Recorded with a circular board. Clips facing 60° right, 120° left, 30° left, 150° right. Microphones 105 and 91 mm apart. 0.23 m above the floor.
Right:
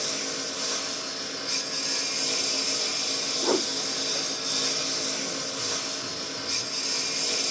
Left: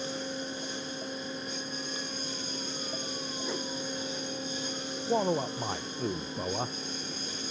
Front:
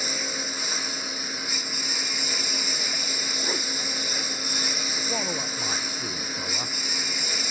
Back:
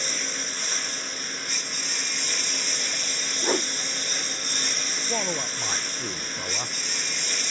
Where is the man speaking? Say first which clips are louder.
Left 7 dB, back 2 dB; 125° left.